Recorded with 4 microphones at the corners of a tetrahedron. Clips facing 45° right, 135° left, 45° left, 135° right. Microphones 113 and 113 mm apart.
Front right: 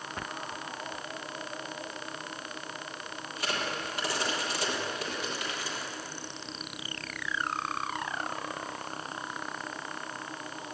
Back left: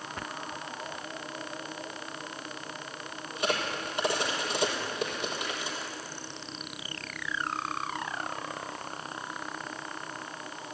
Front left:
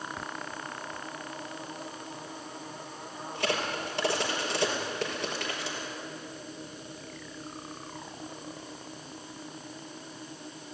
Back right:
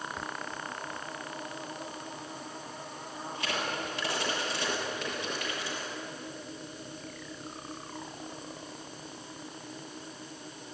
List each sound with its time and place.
3.4 s a crack: 70° left, 6 m